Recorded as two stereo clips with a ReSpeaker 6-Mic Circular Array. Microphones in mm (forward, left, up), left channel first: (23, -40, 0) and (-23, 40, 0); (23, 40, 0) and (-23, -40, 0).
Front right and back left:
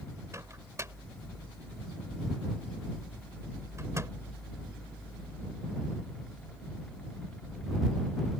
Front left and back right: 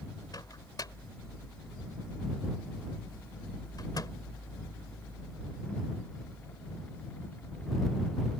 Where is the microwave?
75° left.